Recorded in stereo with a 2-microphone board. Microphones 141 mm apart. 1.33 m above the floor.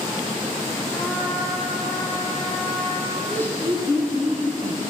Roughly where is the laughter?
Centre.